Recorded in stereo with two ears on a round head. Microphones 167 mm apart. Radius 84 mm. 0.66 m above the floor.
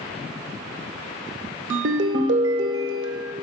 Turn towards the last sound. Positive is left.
turn(degrees=-70)  # may be behind; listen again after turning